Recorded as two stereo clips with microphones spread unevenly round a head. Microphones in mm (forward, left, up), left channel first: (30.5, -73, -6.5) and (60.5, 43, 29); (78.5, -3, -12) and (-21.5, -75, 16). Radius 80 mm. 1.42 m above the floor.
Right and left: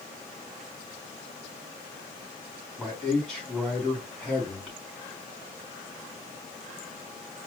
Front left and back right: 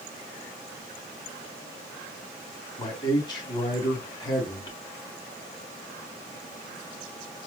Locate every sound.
2.8 s a man speaking: 15° right, 3.5 m